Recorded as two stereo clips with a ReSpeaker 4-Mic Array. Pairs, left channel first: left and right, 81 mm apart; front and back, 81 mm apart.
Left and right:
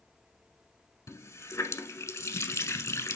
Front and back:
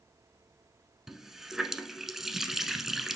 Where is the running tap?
95° left, 0.9 m.